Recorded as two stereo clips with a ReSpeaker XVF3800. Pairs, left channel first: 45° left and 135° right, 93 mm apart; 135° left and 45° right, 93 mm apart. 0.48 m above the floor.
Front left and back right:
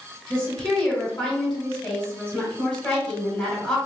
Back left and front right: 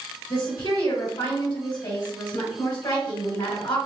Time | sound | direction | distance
0.3 | a woman speaking | 120° left | 1.2 m